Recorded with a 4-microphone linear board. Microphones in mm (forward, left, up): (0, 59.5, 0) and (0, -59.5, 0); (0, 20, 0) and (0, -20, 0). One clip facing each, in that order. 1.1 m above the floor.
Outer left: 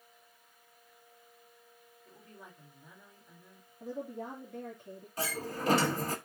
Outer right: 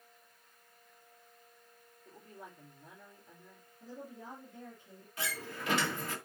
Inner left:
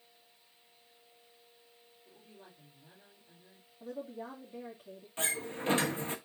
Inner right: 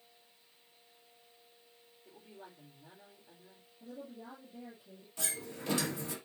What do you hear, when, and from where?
2.0 s a woman speaking: 35° right (ahead or behind), 4 m
3.8 s a woman speaking: 65° left (ahead or behind), 2.5 m
5.2 s a sliding door: 35° left (ahead or behind), 1.3 m